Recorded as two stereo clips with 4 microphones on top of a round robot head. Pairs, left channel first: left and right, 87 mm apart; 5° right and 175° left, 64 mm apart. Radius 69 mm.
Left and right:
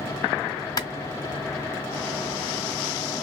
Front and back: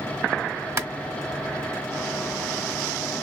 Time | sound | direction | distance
0.8 | a clap | 135° left | 1.4 m